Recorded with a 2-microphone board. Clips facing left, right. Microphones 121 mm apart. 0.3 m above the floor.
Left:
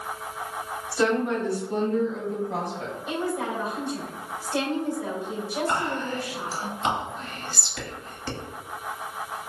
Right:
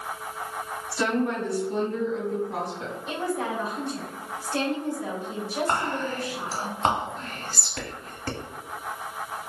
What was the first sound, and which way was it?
A woman speaking, 15° left (ahead or behind).